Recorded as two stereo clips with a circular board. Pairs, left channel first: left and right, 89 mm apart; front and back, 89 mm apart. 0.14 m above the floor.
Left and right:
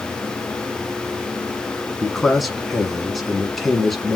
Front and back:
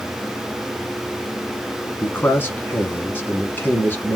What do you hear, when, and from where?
2.0 s a man speaking: straight ahead, 1.2 m